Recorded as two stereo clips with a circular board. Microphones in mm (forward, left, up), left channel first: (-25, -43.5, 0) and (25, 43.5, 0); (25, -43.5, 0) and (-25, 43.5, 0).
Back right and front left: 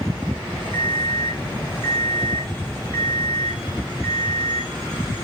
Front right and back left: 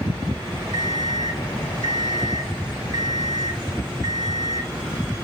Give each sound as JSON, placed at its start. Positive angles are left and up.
{"t": 0.7, "sound": "an alarm clock", "azimuth_deg": -115, "distance_m": 1.9}